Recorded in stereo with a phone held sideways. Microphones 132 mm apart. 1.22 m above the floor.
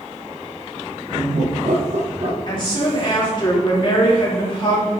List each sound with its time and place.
1.1 s laughter: 50° right (ahead or behind), 1.2 m; by 2.4 s 45° right (ahead or behind), 1.5 m
2.5 s a woman speaking: 40° left (ahead or behind), 3 m